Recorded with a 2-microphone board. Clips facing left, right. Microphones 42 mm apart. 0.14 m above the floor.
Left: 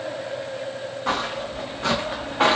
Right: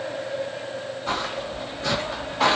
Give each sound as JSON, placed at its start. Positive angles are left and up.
{"t": 1.1, "sound": "footsteps", "side_deg": 70, "distance_m": 1.6}